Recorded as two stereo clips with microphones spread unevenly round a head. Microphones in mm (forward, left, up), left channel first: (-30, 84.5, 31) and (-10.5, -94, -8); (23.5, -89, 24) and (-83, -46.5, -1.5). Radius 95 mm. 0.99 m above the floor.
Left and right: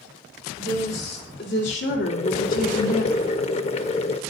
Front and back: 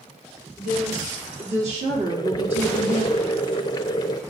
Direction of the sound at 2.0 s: 40° left.